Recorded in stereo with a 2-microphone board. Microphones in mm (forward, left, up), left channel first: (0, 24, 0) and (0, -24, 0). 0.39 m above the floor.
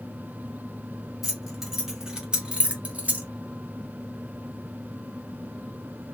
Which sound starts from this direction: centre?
Keys jangling, at 1.2 s.